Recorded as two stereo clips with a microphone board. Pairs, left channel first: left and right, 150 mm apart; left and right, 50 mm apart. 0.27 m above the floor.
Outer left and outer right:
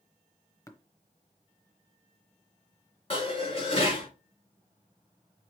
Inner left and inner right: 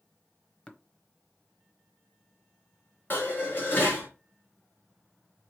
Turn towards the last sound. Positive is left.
turn(degrees=40)  # may be behind; listen again after turning